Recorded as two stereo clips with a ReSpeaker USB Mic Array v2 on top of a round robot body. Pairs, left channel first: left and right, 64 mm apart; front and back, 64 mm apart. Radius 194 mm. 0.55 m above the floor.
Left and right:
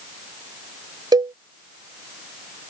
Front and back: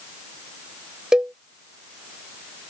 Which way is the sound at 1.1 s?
100° right.